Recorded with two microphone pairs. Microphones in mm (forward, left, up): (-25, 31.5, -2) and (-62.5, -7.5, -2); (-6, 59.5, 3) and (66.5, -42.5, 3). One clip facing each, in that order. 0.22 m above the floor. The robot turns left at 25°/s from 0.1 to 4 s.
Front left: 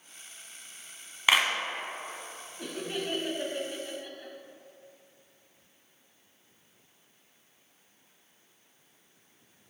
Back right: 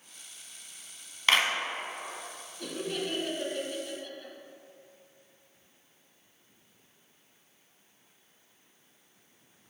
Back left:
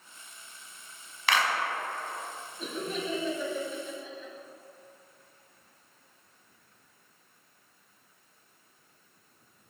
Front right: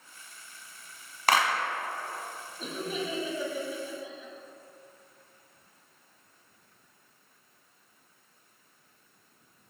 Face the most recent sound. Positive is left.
turn(degrees=-5)